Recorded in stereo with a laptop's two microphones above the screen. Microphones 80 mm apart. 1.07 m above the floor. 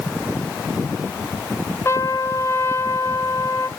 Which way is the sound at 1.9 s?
35° left (ahead or behind).